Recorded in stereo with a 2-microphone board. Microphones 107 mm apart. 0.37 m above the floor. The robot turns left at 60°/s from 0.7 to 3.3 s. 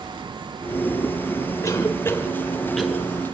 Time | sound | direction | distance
1.6 | a cough | 30° left (ahead or behind) | 1.4 m